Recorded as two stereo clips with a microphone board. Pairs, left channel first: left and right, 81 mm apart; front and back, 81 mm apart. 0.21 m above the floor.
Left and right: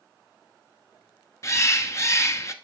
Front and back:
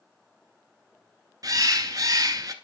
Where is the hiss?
No hiss in this recording.